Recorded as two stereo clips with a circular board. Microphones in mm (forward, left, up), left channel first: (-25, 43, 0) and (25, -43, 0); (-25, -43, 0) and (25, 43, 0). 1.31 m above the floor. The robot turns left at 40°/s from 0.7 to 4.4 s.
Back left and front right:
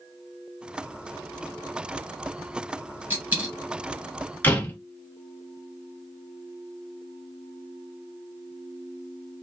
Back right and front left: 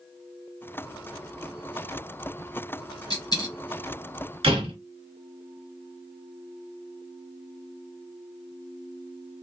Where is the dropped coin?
120° right, 1.6 m; by 3.5 s 135° right, 1.6 m.